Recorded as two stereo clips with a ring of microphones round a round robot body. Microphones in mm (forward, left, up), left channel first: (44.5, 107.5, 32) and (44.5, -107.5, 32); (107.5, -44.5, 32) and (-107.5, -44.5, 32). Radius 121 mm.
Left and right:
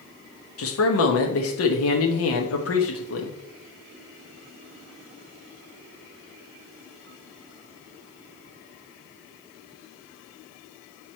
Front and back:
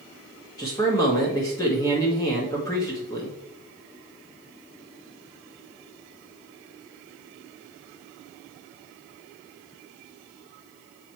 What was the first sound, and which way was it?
A man speaking, 75° left.